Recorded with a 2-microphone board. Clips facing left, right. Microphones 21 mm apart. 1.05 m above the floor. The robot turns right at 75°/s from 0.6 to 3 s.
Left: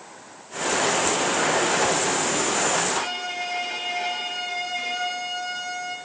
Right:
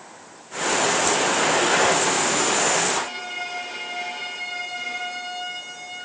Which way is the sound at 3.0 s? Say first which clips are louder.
Left 1 dB; 25° left (ahead or behind).